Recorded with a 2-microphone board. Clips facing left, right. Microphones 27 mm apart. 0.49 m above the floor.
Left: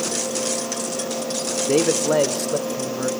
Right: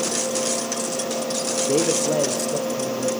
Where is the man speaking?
30° left (ahead or behind), 1.1 m; by 3.1 s 65° left (ahead or behind), 3 m.